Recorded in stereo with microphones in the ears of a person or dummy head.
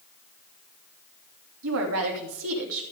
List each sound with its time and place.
1.6 s a woman speaking: 80° right, 2.5 m